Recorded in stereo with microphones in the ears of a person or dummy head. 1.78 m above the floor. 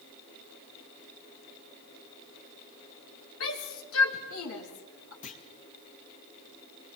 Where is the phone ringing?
I don't hear a phone ringing.